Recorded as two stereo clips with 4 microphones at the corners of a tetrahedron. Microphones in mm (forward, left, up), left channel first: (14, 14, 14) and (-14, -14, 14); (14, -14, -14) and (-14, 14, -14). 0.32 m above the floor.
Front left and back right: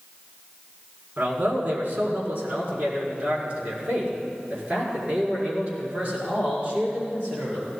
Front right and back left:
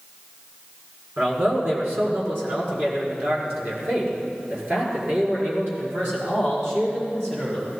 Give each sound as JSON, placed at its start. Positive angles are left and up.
{"t": 1.2, "sound": "a man speaking", "azimuth_deg": 175, "distance_m": 4.0}